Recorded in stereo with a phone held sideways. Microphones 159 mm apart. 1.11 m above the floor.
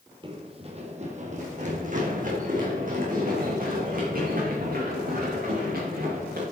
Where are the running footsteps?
30° right (ahead or behind), 1.5 m; by 6.4 s 70° right (ahead or behind), 6 m.